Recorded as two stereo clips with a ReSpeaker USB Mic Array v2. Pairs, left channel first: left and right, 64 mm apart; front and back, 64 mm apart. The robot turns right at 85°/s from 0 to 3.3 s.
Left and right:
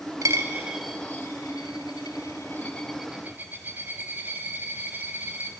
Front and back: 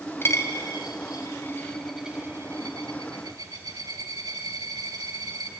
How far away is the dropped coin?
About 2.5 m.